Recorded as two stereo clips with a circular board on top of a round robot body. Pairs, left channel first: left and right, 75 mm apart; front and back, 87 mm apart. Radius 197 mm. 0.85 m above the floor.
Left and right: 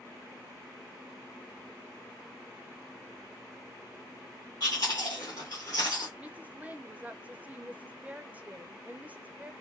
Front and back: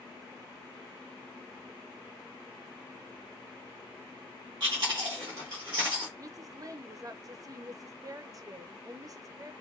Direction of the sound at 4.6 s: 140° left.